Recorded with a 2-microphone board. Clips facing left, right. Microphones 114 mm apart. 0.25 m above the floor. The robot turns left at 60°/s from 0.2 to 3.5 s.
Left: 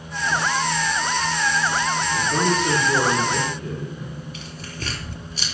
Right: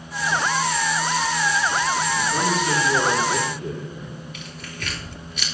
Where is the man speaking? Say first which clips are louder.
Left 1 dB; 65° left, 6.5 m; by 4.2 s 15° right, 6.5 m.